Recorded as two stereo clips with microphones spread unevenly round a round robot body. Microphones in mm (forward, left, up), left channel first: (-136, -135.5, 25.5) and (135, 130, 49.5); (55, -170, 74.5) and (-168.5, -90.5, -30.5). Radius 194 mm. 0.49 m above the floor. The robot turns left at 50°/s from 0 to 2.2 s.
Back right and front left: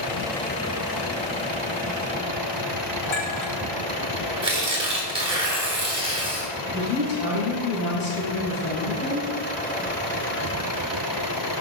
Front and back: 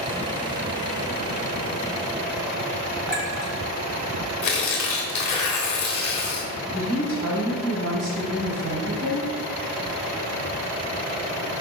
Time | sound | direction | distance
3.1 | a clink | 115° right | 3 m
4.4 | tearing paper | 35° right | 1.5 m
6.7 | a woman speaking | 165° left | 3 m